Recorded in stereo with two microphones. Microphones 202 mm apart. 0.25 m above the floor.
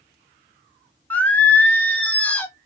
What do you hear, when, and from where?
1.1 s singing: 10° left (ahead or behind), 0.7 m